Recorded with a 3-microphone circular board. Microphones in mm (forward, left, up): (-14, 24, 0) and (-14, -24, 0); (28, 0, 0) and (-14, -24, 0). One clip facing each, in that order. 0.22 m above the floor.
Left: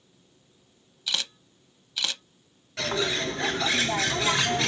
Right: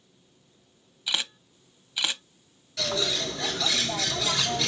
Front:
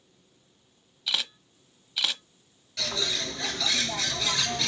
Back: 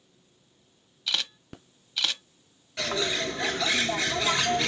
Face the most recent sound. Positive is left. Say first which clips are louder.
# left 2 dB, back 3 dB
turn(degrees=145)